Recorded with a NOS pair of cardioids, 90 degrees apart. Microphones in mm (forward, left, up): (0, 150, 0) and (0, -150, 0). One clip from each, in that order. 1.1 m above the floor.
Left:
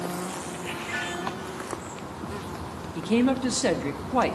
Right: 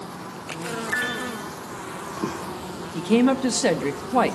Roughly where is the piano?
Ahead right.